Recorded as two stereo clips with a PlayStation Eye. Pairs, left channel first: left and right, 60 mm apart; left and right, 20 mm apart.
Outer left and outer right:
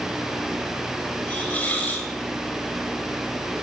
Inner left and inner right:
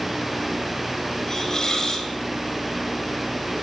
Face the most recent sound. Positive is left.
turn(degrees=35)  # may be behind; listen again after turning